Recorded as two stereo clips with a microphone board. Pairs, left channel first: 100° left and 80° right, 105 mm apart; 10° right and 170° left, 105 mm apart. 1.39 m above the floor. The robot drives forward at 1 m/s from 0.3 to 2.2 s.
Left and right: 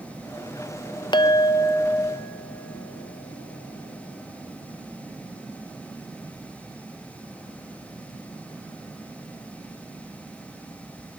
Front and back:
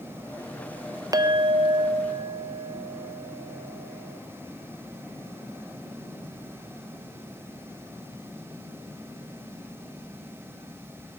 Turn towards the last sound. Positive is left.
turn(degrees=165)